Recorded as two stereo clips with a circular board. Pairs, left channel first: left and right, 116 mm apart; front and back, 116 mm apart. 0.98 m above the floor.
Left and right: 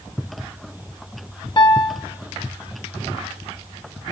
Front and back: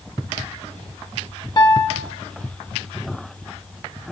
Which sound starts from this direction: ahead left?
A piano, at 1.6 s.